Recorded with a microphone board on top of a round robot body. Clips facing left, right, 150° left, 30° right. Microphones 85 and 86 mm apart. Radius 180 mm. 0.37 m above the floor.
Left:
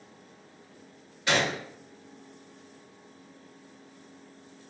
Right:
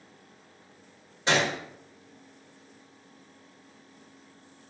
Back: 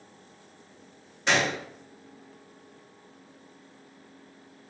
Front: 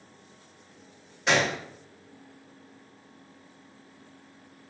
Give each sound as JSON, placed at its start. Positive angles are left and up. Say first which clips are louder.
{"t": 1.3, "sound": "a gunshot", "louder": "right 1 dB, front 1 dB", "azimuth_deg": -115, "distance_m": 1.2}